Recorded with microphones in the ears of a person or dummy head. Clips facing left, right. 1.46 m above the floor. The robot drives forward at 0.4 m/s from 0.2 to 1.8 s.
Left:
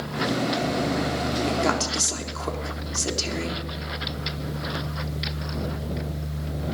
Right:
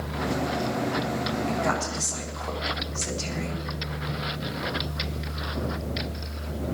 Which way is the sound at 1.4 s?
60° left (ahead or behind).